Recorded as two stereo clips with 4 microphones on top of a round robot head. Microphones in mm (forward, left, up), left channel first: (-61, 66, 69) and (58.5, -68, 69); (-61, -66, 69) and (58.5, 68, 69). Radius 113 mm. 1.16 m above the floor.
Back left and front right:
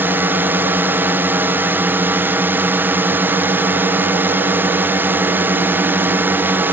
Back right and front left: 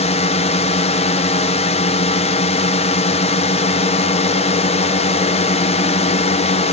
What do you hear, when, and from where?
0.0 s a drone: 120° right